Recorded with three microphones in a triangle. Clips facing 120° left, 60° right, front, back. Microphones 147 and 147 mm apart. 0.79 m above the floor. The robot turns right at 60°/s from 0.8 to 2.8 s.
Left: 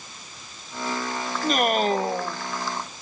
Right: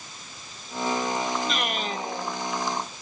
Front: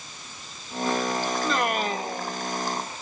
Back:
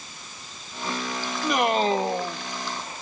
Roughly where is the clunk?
I don't hear a clunk.